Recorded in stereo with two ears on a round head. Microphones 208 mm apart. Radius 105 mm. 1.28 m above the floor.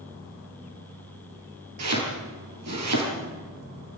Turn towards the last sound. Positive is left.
turn(degrees=-80)